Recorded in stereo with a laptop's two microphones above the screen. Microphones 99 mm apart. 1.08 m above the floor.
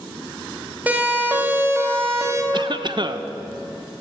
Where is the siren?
15° right (ahead or behind), 3.5 m; by 2.4 s 35° right (ahead or behind), 3.5 m.